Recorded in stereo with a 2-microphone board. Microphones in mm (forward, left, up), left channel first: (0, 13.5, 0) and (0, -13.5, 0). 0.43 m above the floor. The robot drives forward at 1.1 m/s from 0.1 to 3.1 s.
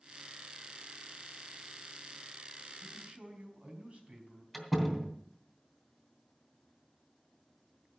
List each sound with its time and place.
2.8 s a man speaking: 50° right (ahead or behind), 4 m; by 4.4 s 45° right (ahead or behind), 4 m
4.5 s a door slam: 5° right (ahead or behind), 3 m